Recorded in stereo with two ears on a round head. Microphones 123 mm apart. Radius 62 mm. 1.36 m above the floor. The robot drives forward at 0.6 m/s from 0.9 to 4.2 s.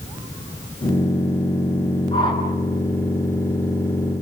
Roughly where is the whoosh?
Left.